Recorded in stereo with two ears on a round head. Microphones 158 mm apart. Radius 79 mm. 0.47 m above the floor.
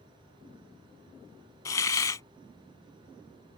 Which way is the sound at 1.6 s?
20° left (ahead or behind).